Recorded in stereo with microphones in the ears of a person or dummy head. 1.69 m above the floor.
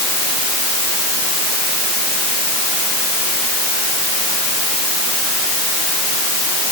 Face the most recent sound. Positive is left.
No sound to turn to.